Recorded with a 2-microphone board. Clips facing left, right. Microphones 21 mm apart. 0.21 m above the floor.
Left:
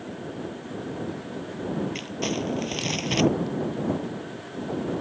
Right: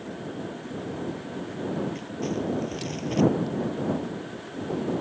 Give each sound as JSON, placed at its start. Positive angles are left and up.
{"t": 1.9, "sound": "crumpling", "side_deg": 65}